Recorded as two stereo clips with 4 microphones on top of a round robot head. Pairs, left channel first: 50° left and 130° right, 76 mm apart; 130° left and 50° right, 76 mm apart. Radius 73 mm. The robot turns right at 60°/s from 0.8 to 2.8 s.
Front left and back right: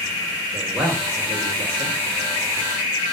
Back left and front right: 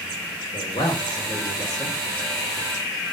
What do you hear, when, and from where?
0.5 s a man speaking: 140° left, 1.4 m; by 2.0 s 150° right, 1.4 m